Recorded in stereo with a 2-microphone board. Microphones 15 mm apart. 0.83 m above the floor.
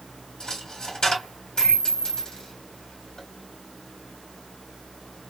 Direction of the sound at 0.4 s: 70° left (ahead or behind).